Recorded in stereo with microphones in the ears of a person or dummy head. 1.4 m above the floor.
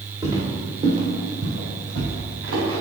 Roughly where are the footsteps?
Centre.